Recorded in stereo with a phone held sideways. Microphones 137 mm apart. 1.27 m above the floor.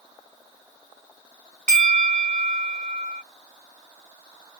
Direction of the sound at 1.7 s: 65° right (ahead or behind).